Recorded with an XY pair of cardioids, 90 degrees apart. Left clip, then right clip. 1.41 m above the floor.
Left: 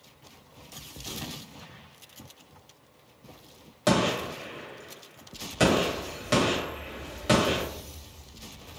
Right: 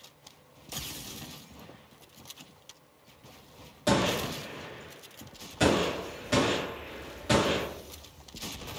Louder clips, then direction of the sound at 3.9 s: Left 2 dB; 65° left.